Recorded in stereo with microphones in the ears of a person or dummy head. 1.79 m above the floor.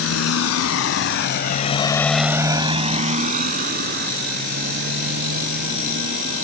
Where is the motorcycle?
80° left; by 6.4 s 60° right (ahead or behind).